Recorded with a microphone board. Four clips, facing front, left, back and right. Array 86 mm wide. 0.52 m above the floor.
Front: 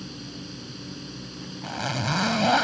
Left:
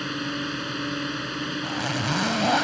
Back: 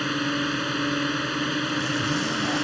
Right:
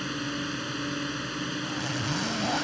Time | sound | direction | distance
0.0 | a drone | 170° left | ?
1.6 | a zipper | 35° left | ?